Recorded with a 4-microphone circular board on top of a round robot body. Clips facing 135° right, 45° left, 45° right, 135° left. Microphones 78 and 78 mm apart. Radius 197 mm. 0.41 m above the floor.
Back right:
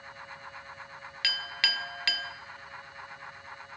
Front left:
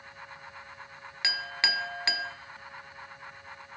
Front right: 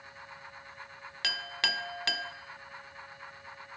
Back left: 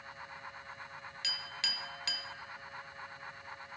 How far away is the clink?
About 0.9 m.